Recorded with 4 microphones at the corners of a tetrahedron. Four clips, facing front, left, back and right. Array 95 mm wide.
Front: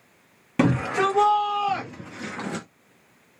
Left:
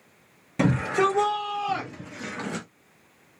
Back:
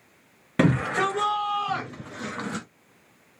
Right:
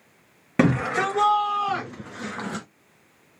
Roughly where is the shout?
Right.